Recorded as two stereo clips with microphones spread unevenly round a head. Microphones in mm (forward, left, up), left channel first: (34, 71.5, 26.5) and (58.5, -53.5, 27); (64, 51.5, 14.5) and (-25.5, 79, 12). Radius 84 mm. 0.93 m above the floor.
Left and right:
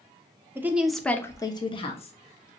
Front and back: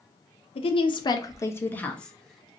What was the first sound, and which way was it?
A woman speaking, 10° right.